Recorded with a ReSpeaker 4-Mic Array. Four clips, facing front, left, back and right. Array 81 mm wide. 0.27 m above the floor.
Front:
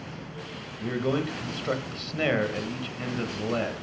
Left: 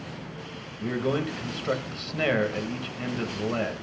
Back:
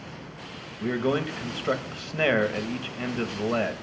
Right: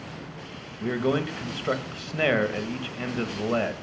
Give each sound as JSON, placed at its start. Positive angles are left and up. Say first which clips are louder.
{"t": 0.8, "sound": "a man speaking", "louder": "right 2 dB, back 2 dB", "azimuth_deg": -140, "distance_m": 1.0}